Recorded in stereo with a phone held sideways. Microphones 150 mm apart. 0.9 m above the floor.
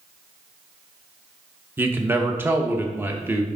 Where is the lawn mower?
No lawn mower in this recording.